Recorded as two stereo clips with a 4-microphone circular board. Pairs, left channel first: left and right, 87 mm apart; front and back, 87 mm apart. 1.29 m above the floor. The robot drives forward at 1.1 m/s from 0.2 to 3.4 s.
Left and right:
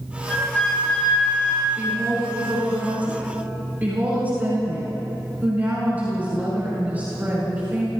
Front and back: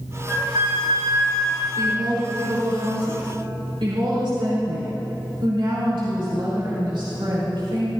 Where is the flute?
165° left, 2.5 m; by 1.7 s 170° left, 4 m.